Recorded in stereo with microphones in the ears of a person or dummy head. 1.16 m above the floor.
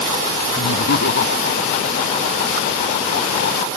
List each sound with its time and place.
0.6 s laughter: 70° left (ahead or behind); by 3.6 s 65° left (ahead or behind)